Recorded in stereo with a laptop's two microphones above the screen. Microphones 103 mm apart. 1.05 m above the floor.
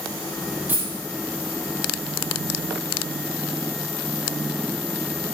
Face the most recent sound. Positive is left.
turn(degrees=-15)  # may be behind; listen again after turning